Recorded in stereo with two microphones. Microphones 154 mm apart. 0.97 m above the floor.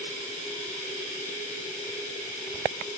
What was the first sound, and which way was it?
Running water, 50° left (ahead or behind).